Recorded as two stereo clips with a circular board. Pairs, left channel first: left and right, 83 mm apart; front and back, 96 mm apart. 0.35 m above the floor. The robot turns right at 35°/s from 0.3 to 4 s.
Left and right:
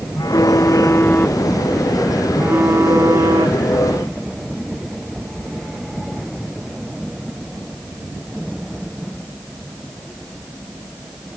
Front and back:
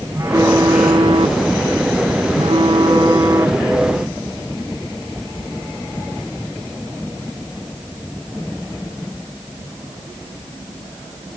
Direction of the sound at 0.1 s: 125° left.